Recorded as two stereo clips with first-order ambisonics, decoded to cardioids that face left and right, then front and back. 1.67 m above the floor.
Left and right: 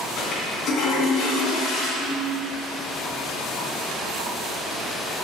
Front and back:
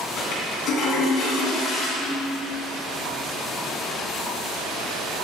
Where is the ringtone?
115° left, 2.5 m.